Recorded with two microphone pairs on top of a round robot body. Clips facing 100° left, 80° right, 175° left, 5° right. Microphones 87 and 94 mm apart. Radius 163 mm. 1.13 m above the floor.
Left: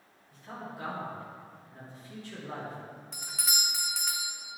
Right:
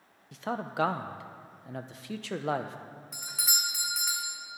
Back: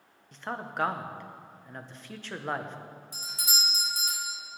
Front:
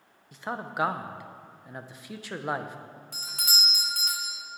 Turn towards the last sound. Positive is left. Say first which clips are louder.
# even, front 1 dB
turn(degrees=10)